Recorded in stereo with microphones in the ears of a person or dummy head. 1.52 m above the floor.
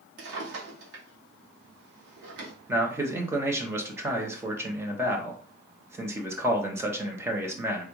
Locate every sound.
0.2 s a drawer: 70° right (ahead or behind), 1.6 m
2.7 s a man speaking: 20° right (ahead or behind), 1.0 m